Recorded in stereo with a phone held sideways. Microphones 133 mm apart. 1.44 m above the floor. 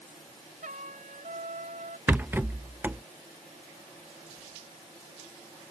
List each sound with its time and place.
0.6 s a trumpet: 80° right
2.1 s a rattle: 15° right (ahead or behind)